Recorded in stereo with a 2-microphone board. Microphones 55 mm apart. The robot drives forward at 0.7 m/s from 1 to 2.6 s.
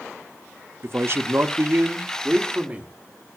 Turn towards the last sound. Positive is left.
turn(degrees=-25)  # may be behind; listen again after turning